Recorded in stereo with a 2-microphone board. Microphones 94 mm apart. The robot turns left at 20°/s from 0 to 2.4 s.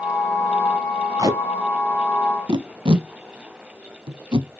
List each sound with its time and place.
1.2 s tape being pulled: 40° right (ahead or behind), 0.5 m; by 4.5 s 60° right (ahead or behind), 0.5 m